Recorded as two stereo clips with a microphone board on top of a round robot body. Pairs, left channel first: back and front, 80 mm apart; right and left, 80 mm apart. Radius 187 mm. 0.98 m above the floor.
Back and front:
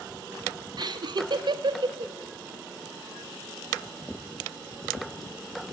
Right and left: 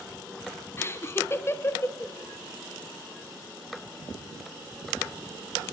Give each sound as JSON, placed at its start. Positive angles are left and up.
{"t": 0.8, "sound": "laughter", "azimuth_deg": -30, "distance_m": 1.4}